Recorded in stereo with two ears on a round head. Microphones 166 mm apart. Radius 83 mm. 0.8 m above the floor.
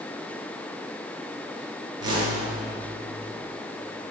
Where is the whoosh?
25° right (ahead or behind), 6.5 m.